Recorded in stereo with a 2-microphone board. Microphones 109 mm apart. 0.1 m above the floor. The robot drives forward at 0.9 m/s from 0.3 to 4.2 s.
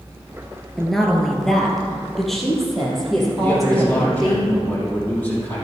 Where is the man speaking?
20° left (ahead or behind), 3.5 m; by 5.7 s 15° left (ahead or behind), 4 m.